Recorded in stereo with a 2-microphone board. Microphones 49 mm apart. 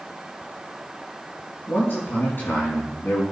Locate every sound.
1.7 s a man speaking: 45° left (ahead or behind), 4.5 m